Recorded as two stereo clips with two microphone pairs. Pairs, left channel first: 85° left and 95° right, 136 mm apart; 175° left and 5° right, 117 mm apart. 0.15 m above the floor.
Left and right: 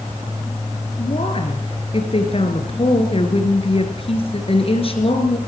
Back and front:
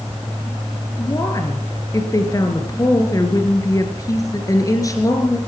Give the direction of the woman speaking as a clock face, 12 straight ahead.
8 o'clock.